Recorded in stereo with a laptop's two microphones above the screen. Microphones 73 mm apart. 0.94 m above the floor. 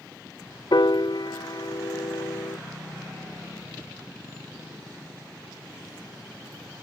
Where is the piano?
75° left (ahead or behind).